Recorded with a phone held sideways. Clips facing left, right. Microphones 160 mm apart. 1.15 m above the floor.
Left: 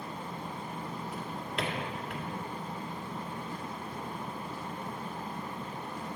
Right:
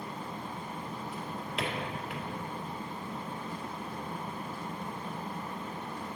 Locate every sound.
1.1 s a drawer: centre (ahead or behind), 1.1 m